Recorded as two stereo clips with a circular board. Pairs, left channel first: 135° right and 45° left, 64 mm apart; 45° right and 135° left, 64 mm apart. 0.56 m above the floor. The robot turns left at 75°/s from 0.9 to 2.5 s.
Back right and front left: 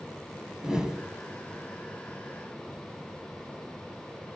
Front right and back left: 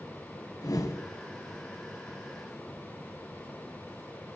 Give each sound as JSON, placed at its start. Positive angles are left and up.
{"t": 0.6, "sound": "a whoosh", "azimuth_deg": -35, "distance_m": 2.5}